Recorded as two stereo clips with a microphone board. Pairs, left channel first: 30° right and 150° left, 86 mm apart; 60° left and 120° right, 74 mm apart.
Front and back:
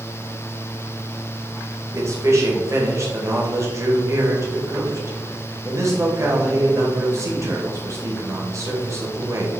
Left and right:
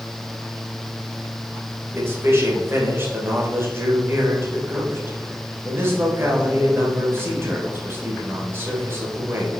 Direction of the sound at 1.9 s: 170° right.